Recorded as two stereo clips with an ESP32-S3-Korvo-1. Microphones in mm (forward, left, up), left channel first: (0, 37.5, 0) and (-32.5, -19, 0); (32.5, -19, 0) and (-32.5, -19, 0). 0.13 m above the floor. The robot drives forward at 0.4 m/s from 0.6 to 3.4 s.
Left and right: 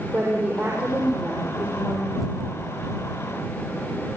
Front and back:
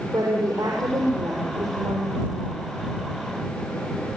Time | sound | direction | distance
0.1 | a woman speaking | 175° right | 6 m